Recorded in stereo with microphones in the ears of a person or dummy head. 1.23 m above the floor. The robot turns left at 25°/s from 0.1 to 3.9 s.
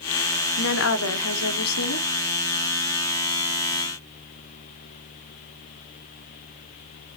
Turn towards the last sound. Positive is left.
turn(degrees=35)